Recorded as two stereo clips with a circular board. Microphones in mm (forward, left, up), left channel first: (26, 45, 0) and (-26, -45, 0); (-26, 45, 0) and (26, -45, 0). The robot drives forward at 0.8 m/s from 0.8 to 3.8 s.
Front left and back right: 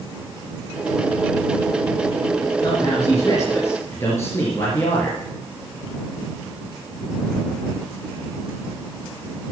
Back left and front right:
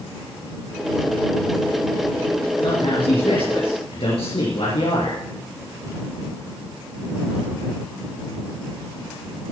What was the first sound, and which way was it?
A man speaking, 105° left.